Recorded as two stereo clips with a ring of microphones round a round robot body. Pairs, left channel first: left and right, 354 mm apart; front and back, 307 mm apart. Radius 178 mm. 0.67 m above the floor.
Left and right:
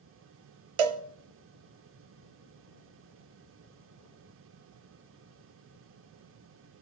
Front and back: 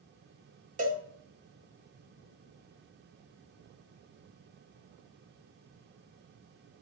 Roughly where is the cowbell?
Right.